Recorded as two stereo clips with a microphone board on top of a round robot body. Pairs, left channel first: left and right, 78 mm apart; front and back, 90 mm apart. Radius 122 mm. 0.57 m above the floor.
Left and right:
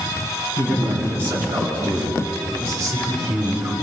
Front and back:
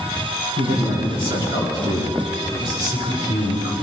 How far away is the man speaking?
About 7 m.